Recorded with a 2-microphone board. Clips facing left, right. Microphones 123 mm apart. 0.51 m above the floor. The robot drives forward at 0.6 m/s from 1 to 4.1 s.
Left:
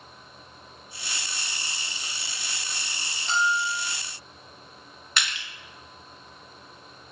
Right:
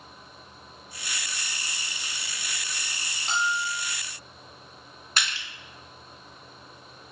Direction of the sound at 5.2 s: 40° right (ahead or behind).